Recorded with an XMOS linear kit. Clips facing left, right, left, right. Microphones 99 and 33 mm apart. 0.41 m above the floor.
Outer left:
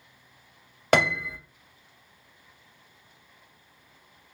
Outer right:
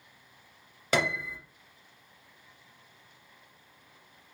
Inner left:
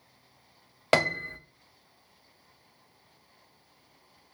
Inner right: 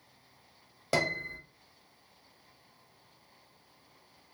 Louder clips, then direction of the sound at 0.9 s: Outer left 6 dB, inner left 5 dB; 60° left (ahead or behind).